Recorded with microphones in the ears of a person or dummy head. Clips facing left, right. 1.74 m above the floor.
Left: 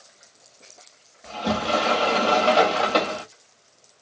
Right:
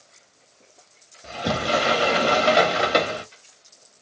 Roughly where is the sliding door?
Centre.